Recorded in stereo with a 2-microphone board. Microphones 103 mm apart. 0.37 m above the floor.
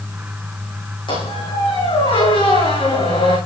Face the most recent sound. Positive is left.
turn(degrees=55)  # may be behind; listen again after turning